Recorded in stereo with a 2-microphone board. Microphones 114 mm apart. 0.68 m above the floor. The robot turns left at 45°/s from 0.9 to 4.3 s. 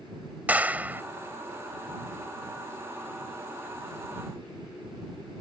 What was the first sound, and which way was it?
A clap, 15° right (ahead or behind).